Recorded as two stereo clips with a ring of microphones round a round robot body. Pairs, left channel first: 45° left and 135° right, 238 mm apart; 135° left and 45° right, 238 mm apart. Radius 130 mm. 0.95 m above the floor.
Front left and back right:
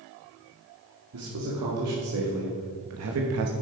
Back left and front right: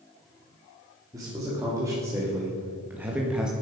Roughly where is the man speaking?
Behind right.